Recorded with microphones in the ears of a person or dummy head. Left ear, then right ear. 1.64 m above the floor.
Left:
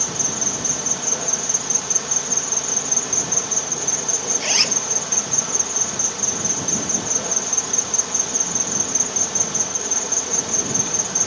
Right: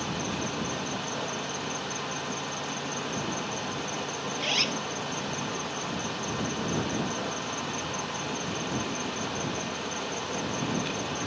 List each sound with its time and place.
0.0 s an insect: 70° left (ahead or behind)
4.4 s a zipper: 35° left (ahead or behind)